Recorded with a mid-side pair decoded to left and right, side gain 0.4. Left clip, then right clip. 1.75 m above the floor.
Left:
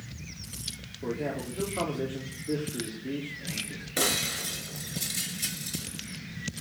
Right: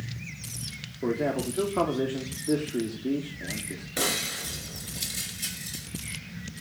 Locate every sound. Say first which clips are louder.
1.0 s a man speaking: right 5 dB; 55° right, 4 m
4.0 s breaking glass: left 1 dB; 20° left, 5 m